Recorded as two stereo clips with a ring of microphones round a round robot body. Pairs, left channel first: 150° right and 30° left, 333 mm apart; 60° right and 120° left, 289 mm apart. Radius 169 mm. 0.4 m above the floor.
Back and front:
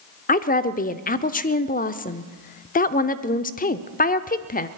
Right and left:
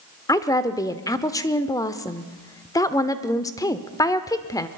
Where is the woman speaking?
125° right, 0.8 m.